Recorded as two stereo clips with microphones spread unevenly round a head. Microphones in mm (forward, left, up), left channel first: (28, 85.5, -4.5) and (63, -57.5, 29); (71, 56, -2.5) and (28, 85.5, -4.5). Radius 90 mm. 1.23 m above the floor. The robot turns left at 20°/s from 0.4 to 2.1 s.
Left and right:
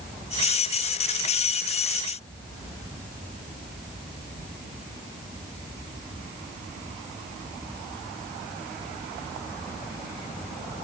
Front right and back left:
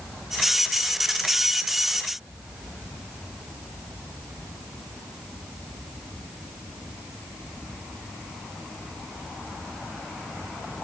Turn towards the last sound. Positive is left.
No sound to turn to.